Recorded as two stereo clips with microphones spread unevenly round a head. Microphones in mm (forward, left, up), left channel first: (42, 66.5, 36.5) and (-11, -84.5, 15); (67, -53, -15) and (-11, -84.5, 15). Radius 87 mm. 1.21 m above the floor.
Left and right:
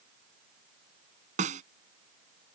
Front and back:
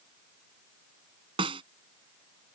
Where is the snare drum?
160° right.